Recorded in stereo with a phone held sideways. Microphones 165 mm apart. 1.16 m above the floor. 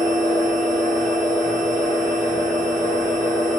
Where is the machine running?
10° left (ahead or behind), 1.7 m.